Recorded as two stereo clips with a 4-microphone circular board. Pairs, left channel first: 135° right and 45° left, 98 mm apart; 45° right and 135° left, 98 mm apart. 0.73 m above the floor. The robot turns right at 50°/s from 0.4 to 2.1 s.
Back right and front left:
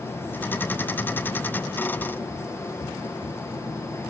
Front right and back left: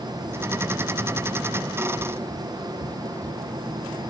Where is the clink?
I don't hear a clink.